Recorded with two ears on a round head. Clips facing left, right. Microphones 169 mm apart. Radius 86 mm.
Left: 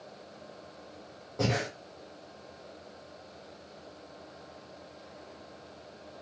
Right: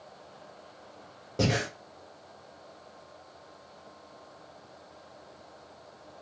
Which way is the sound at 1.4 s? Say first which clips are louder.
Right 2 dB; 35° right (ahead or behind).